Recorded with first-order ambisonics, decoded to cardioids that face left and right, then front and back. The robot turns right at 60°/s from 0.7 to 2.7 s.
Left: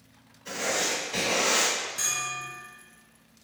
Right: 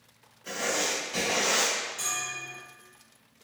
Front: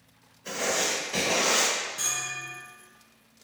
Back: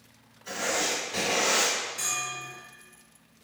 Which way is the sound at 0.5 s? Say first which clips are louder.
Left 1 dB, front 1 dB; 5° right.